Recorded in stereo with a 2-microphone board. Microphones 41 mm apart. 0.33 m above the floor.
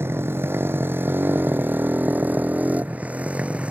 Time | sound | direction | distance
0.0 | a motorcycle | 70° right (ahead or behind) | ?